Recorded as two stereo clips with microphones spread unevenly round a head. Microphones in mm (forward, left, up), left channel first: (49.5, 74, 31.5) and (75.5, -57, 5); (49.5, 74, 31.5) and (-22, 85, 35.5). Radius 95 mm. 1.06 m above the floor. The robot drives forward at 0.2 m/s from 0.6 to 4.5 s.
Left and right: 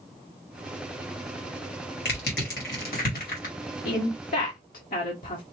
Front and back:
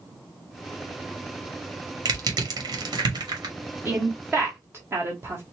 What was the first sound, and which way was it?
Crushing, 140° left.